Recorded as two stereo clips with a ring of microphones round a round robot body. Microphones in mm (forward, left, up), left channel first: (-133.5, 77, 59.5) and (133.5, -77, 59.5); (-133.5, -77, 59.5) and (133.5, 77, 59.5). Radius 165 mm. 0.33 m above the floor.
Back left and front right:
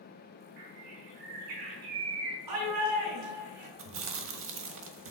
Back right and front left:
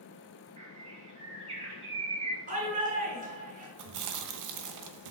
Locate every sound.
0.6 s a bird: 45° right, 6 m
2.5 s a shout: 35° right, 5.5 m
3.8 s chewing: 15° left, 1.4 m